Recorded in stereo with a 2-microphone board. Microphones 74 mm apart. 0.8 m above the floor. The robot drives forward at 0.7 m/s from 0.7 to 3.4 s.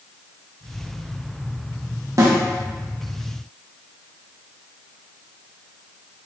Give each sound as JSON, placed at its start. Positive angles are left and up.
{"t": 2.2, "sound": "a snare drum", "side_deg": -45, "distance_m": 0.9}